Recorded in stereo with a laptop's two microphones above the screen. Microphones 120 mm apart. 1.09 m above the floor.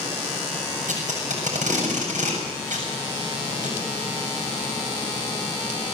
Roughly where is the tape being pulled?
Right.